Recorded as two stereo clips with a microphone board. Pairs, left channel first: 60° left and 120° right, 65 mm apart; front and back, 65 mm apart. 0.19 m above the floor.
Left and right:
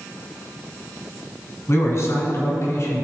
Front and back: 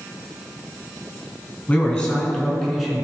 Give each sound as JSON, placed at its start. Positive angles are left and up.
{"t": 1.7, "sound": "a man speaking", "azimuth_deg": 65, "distance_m": 1.8}